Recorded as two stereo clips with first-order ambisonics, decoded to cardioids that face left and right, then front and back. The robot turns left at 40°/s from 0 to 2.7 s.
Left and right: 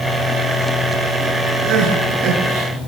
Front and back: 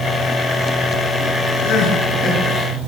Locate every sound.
1.6 s crying: 40° right, 8 m; by 2.7 s 80° right, 8 m